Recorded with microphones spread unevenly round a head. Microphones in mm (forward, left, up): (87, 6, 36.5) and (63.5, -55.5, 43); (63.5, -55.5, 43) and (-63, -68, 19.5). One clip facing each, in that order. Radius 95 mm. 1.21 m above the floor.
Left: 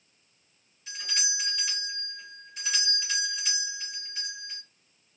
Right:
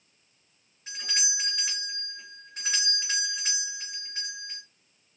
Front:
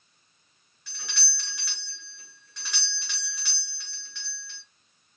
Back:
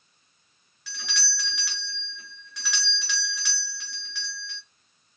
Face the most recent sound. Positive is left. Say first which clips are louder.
# right 1 dB, back 7 dB
turn(degrees=180)